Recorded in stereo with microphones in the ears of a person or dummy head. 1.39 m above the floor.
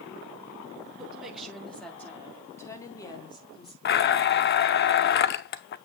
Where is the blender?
50° left (ahead or behind), 0.6 m.